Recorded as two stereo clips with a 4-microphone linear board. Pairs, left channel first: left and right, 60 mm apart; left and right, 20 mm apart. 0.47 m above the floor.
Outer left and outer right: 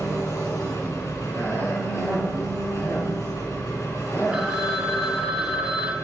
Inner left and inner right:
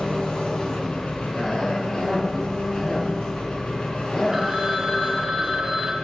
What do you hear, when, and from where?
0.0 s an engine running: 60° left (ahead or behind), 4.5 m
1.3 s a cough: 40° left (ahead or behind), 8 m
4.3 s a phone ringing: 20° right (ahead or behind), 2.0 m